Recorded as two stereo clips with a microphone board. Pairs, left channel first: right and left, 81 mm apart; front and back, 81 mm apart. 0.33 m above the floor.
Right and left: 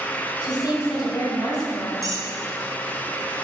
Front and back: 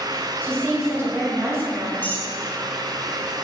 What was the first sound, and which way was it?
A woman speaking, 130° right.